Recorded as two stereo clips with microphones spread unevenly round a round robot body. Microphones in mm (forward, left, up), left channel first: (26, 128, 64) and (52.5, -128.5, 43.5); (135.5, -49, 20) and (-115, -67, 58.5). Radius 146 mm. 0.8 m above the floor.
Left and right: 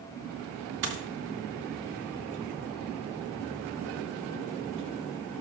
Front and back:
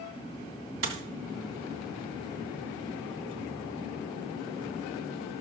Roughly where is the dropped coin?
Behind right.